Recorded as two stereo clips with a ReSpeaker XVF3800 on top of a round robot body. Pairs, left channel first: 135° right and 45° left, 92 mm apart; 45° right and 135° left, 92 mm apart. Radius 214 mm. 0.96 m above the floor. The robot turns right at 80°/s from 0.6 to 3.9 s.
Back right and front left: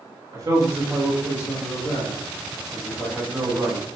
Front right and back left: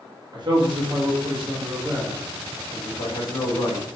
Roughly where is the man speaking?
Left.